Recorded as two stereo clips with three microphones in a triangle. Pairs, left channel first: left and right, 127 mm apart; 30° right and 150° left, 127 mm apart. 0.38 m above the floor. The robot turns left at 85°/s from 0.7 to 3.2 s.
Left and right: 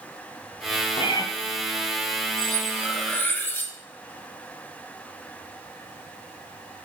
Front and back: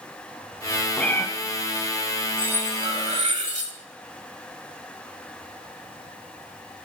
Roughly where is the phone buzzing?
I don't hear a phone buzzing.